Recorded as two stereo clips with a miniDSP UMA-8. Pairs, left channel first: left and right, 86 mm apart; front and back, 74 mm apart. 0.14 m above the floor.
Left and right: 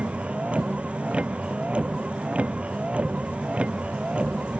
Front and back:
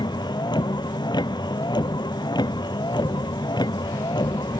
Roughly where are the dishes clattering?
I don't hear dishes clattering.